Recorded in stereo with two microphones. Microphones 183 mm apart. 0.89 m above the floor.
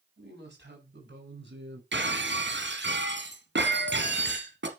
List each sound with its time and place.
0.2 s a woman speaking: 60° right (ahead or behind), 5.5 m; by 1.8 s 65° right (ahead or behind), 5 m
1.9 s breaking glass: 65° right (ahead or behind), 2 m